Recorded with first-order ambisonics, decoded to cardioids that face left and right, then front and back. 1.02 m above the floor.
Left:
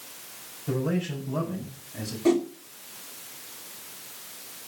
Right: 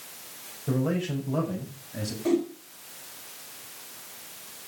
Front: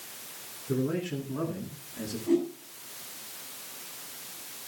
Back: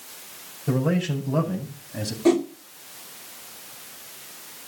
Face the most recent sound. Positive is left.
turn(degrees=165)